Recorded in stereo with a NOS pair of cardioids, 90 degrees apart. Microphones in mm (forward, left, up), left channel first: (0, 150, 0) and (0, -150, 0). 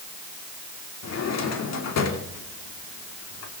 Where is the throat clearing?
No throat clearing in this recording.